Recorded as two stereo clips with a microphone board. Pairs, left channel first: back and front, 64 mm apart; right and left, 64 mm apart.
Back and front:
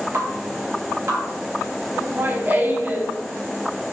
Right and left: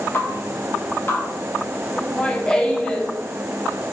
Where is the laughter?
25° right, 1.1 m.